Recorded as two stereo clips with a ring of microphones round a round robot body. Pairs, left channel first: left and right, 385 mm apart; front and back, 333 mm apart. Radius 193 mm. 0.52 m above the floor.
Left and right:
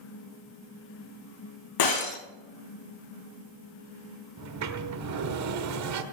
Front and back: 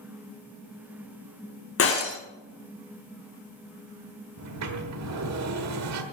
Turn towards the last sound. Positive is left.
turn(degrees=-135)